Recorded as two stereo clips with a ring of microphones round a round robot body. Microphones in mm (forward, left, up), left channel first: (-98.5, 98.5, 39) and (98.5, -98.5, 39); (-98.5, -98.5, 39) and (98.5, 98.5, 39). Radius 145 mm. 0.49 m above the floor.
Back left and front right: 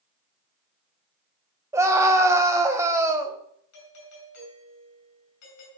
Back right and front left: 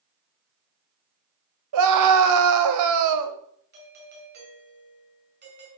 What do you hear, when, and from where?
1.7 s a scream: 35° left, 2.5 m
3.7 s a doorbell: 100° left, 6.5 m